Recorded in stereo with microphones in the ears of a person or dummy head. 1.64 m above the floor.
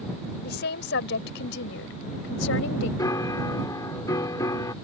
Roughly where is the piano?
Left.